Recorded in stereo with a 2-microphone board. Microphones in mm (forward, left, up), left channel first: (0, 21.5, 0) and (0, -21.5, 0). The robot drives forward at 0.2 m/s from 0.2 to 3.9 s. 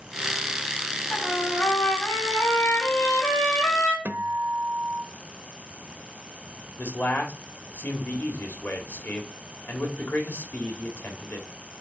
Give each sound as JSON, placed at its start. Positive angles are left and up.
{"t": 1.1, "sound": "a trumpet", "side_deg": 65, "distance_m": 4.0}
{"t": 4.0, "sound": "a guitar", "side_deg": -50, "distance_m": 0.7}
{"t": 6.8, "sound": "a man speaking", "side_deg": 55, "distance_m": 1.7}